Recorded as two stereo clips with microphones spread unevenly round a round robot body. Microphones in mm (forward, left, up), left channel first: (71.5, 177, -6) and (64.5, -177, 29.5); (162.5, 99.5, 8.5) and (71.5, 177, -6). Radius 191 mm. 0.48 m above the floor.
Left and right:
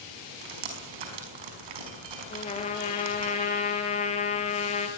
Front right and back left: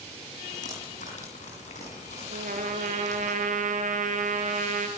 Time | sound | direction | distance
0.4 | dripping | 95° right | 5.5 m
2.3 | a trumpet | 165° left | 2.0 m